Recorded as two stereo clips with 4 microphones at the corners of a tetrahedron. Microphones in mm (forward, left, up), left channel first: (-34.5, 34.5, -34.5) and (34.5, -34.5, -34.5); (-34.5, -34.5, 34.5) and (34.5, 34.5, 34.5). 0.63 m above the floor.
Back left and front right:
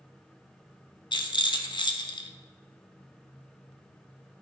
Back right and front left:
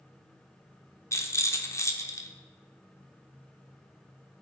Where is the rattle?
170° left, 0.9 m.